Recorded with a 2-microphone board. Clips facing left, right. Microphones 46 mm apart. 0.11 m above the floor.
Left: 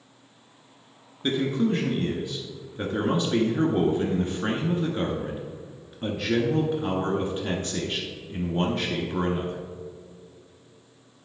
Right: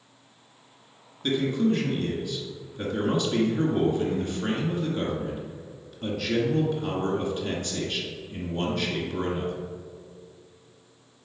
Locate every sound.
1.2 s a man speaking: 20° left (ahead or behind), 1.2 m